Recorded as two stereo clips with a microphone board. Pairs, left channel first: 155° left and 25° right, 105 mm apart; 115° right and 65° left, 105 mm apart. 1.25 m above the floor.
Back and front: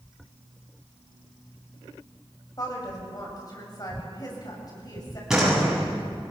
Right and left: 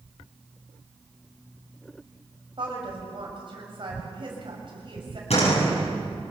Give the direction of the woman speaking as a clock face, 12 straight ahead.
8 o'clock.